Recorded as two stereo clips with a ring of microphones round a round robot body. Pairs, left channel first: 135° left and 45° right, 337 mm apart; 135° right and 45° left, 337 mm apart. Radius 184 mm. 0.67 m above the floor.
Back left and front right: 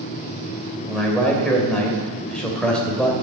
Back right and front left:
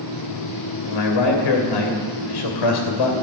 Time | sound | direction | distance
0.9 | a man speaking | 135° right | 3 m